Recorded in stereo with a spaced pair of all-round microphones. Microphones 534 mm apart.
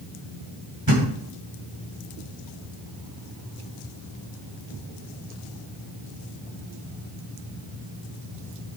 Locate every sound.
0.9 s a thud: 40° right (ahead or behind), 3 m